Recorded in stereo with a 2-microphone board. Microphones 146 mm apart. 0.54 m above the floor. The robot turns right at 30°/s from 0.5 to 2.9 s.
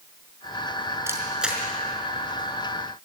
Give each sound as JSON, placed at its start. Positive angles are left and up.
{"t": 1.1, "sound": "a camera shutter", "side_deg": -20, "distance_m": 5.0}